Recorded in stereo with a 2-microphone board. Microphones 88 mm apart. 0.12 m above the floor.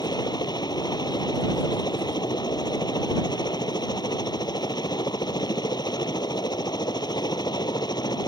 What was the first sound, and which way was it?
A helicopter, 60° left (ahead or behind).